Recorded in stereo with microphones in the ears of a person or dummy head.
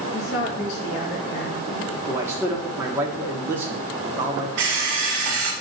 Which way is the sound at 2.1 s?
10° right (ahead or behind).